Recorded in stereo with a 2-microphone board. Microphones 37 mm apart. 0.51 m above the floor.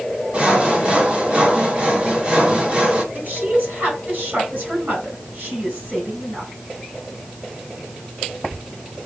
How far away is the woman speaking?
About 3 m.